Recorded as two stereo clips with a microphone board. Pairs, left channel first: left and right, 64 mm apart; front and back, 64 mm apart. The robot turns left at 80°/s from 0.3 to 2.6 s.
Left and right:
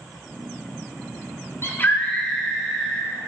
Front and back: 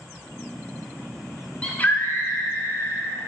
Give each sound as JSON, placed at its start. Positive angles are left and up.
{"t": 1.6, "sound": "a scream", "azimuth_deg": 65, "distance_m": 1.6}